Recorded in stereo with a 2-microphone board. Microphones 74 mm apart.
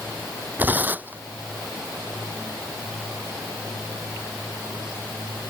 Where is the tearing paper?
20° right (ahead or behind).